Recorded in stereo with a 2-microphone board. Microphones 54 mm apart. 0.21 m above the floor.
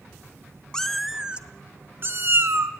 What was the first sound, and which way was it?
A cat meowing, 10° left (ahead or behind).